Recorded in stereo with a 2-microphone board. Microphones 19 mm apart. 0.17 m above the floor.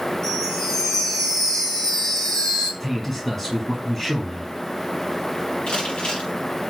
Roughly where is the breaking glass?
I don't hear breaking glass.